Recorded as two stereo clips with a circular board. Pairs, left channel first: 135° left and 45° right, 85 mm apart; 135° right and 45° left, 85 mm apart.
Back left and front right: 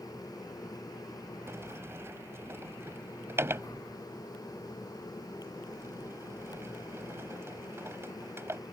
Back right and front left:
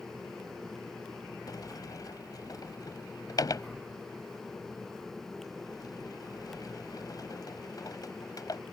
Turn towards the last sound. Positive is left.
turn(degrees=-100)